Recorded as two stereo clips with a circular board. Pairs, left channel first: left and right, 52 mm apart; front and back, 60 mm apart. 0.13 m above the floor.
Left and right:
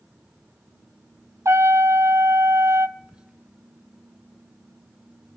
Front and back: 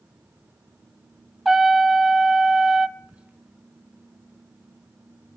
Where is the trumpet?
90° right, 0.7 m.